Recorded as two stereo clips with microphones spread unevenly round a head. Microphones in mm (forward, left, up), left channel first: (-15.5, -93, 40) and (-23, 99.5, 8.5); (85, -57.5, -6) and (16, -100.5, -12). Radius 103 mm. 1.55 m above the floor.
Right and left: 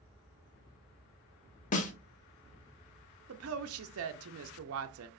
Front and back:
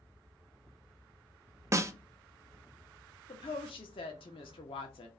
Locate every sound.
1.7 s a snare drum: 100° right, 0.5 m
3.3 s a woman speaking: 70° left, 0.5 m